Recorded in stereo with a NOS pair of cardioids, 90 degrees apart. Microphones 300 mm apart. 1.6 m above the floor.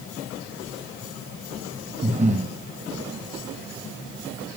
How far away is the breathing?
About 1.8 m.